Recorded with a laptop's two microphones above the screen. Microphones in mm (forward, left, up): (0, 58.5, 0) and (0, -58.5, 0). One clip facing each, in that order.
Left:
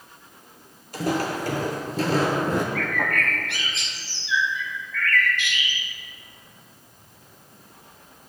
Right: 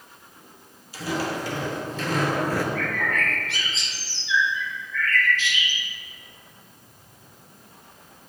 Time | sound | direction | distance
0.9 | footsteps | 55° left (ahead or behind) | 1.8 m
2.8 | a bird | 65° left (ahead or behind) | 0.9 m